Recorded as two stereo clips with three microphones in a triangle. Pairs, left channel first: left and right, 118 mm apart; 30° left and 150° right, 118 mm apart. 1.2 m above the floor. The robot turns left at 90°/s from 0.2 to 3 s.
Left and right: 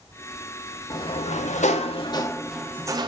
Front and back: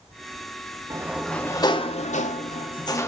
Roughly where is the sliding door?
Behind left.